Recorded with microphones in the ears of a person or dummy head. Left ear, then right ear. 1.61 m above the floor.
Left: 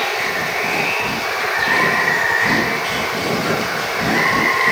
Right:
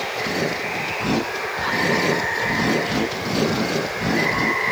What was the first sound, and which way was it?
Running water, 55° left (ahead or behind).